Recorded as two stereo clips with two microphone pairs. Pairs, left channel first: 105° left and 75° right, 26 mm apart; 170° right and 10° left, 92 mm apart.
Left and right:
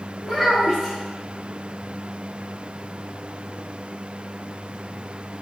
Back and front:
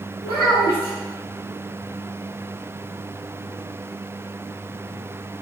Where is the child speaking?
150° right, 1.5 m.